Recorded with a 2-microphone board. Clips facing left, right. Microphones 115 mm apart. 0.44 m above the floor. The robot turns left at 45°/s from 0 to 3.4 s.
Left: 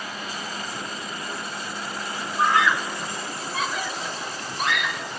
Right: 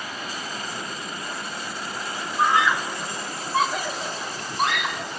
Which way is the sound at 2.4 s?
10° right (ahead or behind).